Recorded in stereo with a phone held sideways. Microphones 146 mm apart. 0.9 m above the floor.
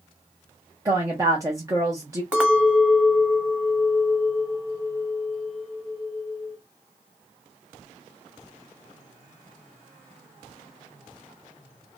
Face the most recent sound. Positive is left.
turn(degrees=-5)  # may be behind; listen again after turning